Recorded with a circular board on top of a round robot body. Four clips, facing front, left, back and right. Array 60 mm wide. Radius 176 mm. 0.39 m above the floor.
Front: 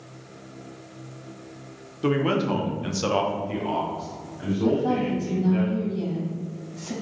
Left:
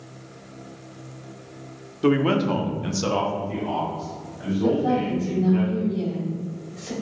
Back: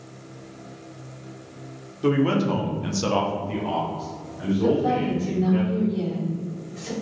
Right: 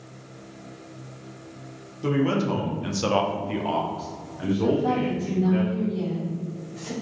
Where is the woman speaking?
160° right, 2.0 m.